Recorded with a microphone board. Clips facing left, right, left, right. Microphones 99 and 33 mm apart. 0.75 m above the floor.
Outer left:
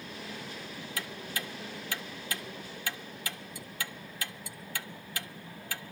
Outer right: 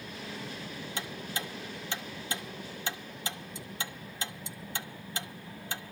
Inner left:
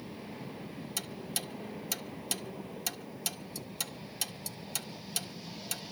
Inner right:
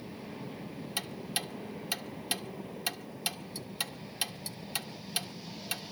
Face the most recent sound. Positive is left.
turn(degrees=-25)  # may be behind; listen again after turning